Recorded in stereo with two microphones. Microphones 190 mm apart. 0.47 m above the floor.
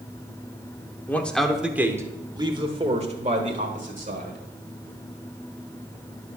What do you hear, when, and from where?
1.1 s a man speaking: 10° left (ahead or behind), 1.1 m; by 4.4 s 50° right (ahead or behind), 2 m